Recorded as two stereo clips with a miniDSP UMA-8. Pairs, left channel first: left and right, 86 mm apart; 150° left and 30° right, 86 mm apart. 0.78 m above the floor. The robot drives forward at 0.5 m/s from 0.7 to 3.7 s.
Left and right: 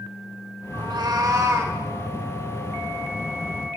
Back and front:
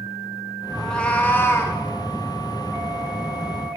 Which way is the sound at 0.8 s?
125° right.